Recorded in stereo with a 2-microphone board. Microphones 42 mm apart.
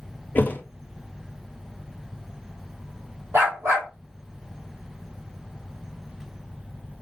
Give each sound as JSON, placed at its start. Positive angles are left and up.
{"t": 0.3, "sound": "a thud", "side_deg": 50, "distance_m": 0.5}
{"t": 3.3, "sound": "a dog barking", "side_deg": -70, "distance_m": 1.5}